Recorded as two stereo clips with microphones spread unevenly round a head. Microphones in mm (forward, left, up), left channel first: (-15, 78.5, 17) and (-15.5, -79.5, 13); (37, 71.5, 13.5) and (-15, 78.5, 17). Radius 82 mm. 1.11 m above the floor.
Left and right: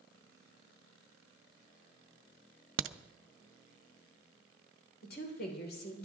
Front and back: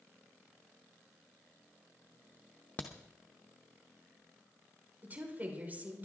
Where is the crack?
85° right, 0.6 m.